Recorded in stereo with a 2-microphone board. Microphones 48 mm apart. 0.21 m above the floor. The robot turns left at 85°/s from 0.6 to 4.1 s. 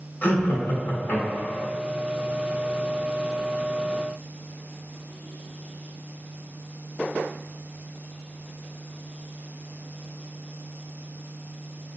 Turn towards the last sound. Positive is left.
turn(degrees=175)